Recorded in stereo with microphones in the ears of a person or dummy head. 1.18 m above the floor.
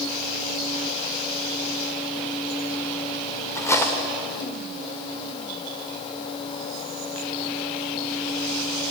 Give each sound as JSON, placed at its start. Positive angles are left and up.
{"t": 3.5, "sound": "cutlery clinking", "side_deg": 20, "distance_m": 2.5}